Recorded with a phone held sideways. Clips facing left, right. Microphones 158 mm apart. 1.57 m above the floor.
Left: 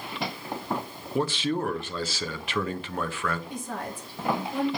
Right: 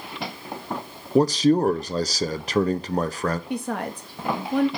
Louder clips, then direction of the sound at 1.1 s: Right 9 dB; 40° right (ahead or behind).